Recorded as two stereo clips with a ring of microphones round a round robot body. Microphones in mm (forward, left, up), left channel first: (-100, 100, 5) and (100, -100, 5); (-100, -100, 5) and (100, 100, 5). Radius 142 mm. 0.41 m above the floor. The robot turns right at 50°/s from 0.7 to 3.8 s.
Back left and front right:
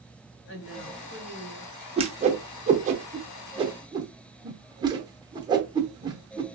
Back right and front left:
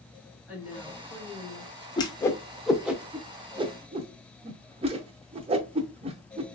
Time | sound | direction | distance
0.5 | a woman speaking | 125° left | 1.6 m
2.0 | a whoosh | 85° right | 0.5 m